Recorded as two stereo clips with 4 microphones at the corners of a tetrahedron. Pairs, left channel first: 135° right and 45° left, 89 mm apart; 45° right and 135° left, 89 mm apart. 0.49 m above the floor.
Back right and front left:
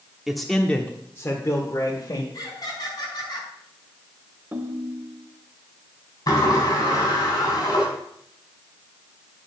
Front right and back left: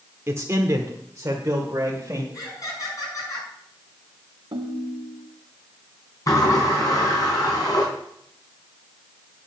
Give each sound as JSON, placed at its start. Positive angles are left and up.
{"t": 0.3, "sound": "a man speaking", "azimuth_deg": 125, "distance_m": 1.0}
{"t": 2.3, "sound": "laughter", "azimuth_deg": -95, "distance_m": 5.5}
{"t": 4.5, "sound": "a ringtone", "azimuth_deg": 110, "distance_m": 0.8}
{"t": 6.3, "sound": "a sliding door", "azimuth_deg": -90, "distance_m": 4.0}